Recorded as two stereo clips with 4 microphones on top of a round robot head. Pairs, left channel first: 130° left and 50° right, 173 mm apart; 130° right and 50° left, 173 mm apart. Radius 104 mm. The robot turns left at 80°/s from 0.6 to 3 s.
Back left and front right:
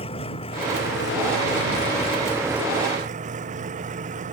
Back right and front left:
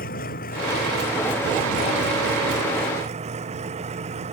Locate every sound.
0.0 s an engine running: 170° right; by 4.3 s 5° right